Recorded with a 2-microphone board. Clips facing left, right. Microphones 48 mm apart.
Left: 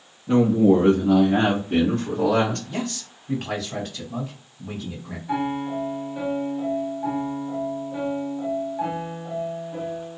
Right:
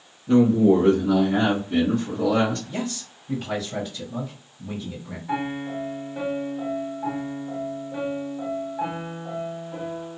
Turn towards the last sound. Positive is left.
turn(degrees=-10)  # may be behind; listen again after turning